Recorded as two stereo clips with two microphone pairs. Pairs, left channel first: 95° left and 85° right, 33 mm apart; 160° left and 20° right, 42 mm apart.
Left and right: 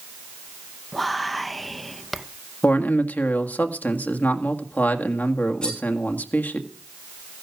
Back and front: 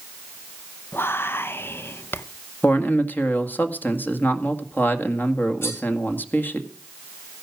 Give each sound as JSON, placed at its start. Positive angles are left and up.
{"t": 0.9, "sound": "whispering", "azimuth_deg": 180, "distance_m": 0.8}
{"t": 2.6, "sound": "a man speaking", "azimuth_deg": 125, "distance_m": 1.9}
{"t": 5.6, "sound": "cutlery clinking", "azimuth_deg": 160, "distance_m": 8.0}